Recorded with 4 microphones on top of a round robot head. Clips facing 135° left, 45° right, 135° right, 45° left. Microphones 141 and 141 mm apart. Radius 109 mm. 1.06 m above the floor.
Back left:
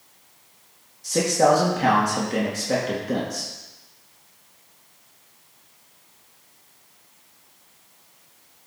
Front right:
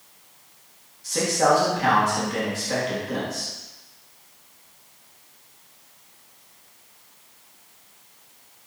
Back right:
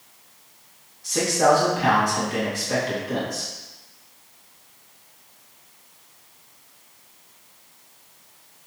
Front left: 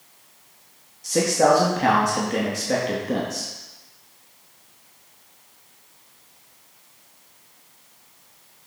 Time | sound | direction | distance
1.0 | a man speaking | 90° left | 2 m